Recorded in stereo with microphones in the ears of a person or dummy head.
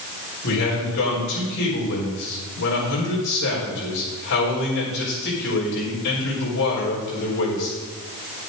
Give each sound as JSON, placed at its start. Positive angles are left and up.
{"t": 0.4, "sound": "a man speaking", "side_deg": 65, "distance_m": 4.5}